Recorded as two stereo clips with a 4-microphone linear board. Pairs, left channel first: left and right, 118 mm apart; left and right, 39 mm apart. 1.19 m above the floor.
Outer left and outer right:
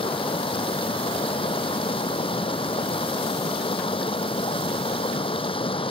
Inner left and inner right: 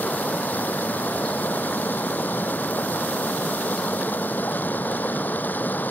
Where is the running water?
50° left (ahead or behind).